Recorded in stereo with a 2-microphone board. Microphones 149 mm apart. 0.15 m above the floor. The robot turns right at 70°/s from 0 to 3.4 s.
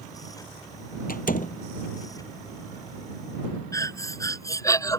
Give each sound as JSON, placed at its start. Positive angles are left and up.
{"t": 1.1, "sound": "a door slam", "side_deg": 70}
{"t": 3.7, "sound": "breathing", "side_deg": 20}